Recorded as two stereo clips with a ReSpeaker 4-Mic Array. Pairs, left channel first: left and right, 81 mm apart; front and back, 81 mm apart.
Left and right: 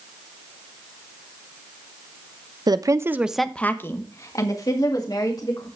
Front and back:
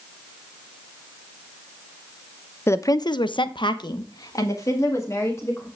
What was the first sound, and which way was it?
A woman speaking, 60° right.